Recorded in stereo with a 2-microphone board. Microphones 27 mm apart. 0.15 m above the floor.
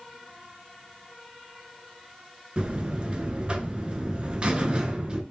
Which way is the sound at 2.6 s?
40° right (ahead or behind).